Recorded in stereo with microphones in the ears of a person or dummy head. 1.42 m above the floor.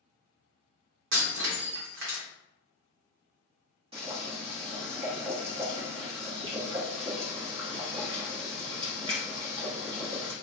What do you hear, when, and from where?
1.1 s breaking glass: 55° right (ahead or behind), 1.0 m
3.9 s boiling: 25° right (ahead or behind), 0.8 m